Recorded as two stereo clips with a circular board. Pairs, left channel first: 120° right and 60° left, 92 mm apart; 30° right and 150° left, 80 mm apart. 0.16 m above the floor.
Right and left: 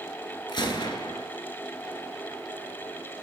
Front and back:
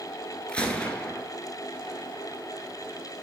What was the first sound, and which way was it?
A gunshot, 105° right.